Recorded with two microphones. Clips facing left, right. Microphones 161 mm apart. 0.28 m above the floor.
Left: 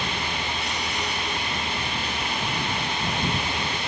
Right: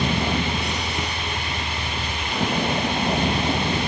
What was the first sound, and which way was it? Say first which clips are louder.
A vehicle: right 7 dB; 75° right (ahead or behind).